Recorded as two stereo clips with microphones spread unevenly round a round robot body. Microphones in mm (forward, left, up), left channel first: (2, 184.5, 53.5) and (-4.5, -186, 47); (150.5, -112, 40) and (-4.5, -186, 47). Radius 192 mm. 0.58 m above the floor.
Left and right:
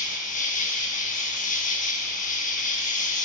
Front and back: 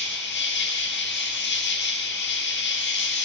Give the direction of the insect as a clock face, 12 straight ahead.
11 o'clock.